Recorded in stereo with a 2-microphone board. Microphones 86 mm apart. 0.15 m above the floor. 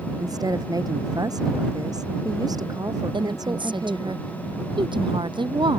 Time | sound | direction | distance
0.2 | a woman speaking | 50° right (ahead or behind) | ?
3.1 | a woman speaking | 70° right (ahead or behind) | ?